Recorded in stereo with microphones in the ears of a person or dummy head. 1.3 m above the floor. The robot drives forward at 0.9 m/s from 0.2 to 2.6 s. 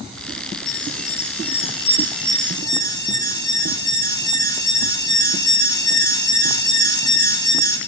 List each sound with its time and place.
0.7 s an alarm: 40° left (ahead or behind), 1.3 m; by 7.8 s 20° left (ahead or behind), 2.5 m